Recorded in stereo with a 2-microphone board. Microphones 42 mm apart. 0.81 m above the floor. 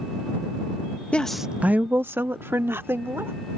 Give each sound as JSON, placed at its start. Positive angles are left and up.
{"t": 1.1, "sound": "a woman speaking", "side_deg": 30}